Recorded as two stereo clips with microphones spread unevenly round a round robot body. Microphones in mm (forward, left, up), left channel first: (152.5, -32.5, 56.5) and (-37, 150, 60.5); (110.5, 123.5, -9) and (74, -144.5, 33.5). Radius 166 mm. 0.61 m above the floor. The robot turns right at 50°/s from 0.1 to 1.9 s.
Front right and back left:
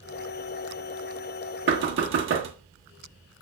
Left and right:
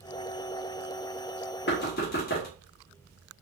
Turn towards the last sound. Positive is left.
turn(degrees=115)